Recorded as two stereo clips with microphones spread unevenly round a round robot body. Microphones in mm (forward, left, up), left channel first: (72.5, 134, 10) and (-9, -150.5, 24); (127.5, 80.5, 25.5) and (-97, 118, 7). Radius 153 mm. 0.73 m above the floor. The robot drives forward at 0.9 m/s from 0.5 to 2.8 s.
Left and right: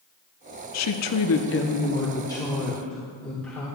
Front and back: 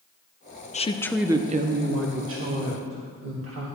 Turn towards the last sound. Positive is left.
turn(degrees=160)